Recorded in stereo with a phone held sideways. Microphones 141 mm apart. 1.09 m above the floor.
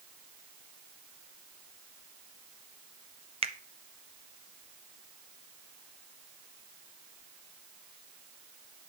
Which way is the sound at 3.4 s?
45° right (ahead or behind).